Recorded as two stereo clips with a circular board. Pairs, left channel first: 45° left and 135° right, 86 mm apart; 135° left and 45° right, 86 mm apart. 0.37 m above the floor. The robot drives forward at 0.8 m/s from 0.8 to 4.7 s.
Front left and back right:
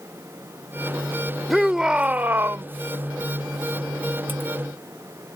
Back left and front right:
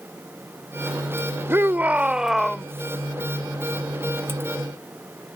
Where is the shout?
45° right; by 2.6 s 140° right.